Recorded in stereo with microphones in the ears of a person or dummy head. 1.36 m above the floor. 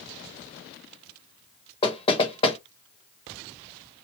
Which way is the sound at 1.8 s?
30° left (ahead or behind).